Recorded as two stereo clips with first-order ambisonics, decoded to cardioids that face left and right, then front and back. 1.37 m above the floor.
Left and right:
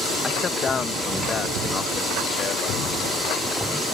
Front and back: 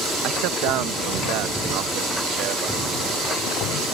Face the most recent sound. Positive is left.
turn(degrees=145)